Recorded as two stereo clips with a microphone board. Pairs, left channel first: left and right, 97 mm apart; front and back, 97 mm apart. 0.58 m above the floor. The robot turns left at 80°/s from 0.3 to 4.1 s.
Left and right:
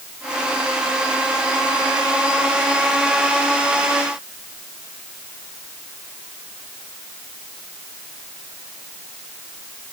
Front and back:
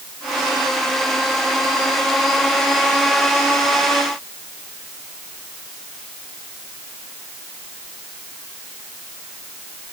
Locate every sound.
Only background noise.